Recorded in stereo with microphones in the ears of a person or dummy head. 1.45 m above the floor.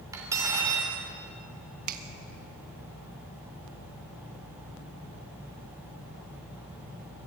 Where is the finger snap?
45° right (ahead or behind), 1.4 m.